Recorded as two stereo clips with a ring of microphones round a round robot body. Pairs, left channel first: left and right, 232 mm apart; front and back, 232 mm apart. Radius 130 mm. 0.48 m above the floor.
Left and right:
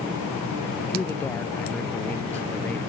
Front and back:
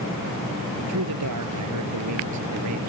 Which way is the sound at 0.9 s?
175° left.